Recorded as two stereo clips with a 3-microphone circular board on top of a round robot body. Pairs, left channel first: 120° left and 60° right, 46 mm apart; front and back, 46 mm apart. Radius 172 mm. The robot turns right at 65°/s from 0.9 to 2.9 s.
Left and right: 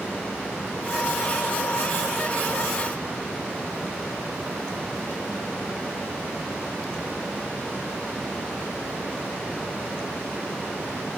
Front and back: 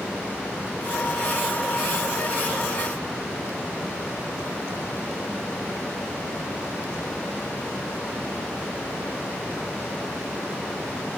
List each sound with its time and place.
Only background noise.